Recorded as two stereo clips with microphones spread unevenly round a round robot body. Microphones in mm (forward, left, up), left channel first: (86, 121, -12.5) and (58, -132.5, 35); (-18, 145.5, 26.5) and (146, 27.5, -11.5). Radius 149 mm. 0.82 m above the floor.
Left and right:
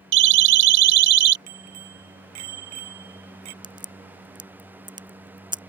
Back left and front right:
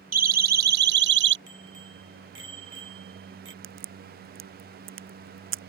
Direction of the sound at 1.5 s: 85° right.